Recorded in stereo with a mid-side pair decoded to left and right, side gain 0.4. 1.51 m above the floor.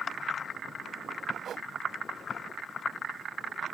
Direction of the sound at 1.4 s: 60° right.